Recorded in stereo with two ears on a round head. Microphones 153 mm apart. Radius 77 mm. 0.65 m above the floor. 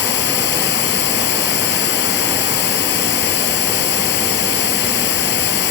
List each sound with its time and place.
0.0 s running water: 70° left (ahead or behind)